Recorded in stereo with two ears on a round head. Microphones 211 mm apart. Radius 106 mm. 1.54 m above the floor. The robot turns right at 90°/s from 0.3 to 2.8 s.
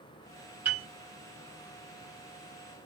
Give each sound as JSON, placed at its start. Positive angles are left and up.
{"t": 0.7, "sound": "a piano", "side_deg": -10, "distance_m": 1.4}